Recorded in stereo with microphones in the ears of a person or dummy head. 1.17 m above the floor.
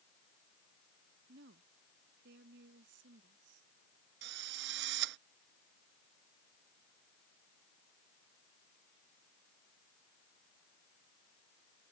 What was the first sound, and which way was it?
A woman speaking, 60° right (ahead or behind).